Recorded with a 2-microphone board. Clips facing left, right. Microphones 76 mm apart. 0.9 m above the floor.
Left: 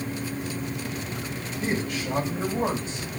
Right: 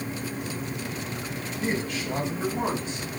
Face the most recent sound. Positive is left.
turn(degrees=25)  # may be behind; listen again after turning